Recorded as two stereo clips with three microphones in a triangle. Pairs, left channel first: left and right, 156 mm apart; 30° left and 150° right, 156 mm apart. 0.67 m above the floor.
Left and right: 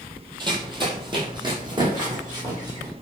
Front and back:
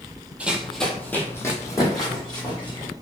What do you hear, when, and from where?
0.4 s running footsteps: 75° right, 0.7 m; by 2.9 s 30° right, 1.8 m